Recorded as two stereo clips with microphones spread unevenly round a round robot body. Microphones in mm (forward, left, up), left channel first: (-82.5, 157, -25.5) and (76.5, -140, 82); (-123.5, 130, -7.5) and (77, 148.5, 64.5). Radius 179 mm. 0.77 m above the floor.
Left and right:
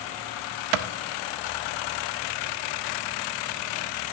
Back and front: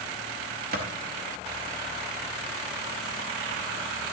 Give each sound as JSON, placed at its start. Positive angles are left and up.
{"t": 0.7, "sound": "a clap", "azimuth_deg": -60, "distance_m": 0.6}